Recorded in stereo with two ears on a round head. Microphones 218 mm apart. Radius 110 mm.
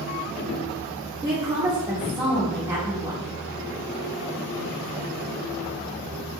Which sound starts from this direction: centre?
A woman speaking, at 1.2 s.